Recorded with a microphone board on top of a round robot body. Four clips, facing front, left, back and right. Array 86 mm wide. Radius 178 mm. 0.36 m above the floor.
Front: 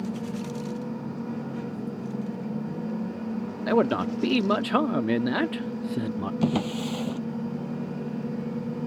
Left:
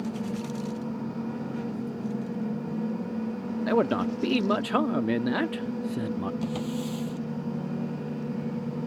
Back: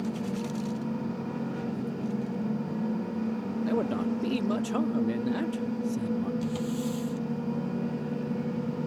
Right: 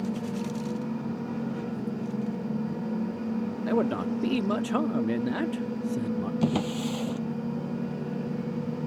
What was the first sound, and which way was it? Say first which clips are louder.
A man speaking: left 3 dB, front 6 dB; 25° left.